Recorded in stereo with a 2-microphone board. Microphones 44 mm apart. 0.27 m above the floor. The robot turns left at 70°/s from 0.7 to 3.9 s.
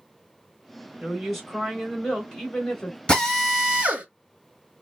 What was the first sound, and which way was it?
A woman speaking, 5° right (ahead or behind).